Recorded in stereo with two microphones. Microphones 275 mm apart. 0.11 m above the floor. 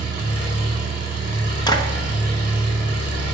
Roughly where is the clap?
Centre.